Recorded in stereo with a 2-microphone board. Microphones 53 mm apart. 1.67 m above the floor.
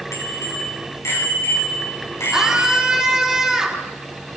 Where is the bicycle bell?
70° left (ahead or behind), 10 m; by 3.1 s 60° left (ahead or behind), 9 m.